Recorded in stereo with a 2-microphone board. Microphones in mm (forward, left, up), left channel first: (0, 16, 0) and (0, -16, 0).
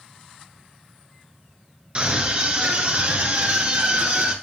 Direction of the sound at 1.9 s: 35° right (ahead or behind).